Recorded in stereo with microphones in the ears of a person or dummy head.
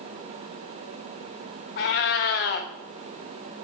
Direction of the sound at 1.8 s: 50° left (ahead or behind).